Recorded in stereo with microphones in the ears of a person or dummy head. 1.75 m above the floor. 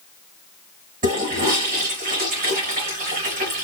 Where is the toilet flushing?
40° right (ahead or behind), 3 m.